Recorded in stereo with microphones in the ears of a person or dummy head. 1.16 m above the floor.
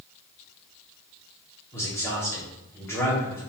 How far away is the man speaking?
About 1.7 m.